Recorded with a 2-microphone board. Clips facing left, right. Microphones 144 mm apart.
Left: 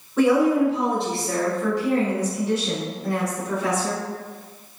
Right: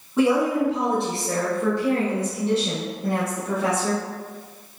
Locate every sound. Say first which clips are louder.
0.2 s a woman speaking: left 2 dB; 15° right (ahead or behind), 1.1 m; by 4.0 s 25° right (ahead or behind), 2 m